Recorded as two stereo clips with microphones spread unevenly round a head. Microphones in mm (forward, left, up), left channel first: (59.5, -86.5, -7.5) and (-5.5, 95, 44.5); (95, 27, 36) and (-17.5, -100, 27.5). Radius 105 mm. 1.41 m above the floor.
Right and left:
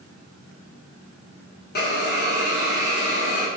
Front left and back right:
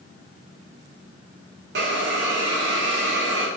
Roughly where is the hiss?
Behind right.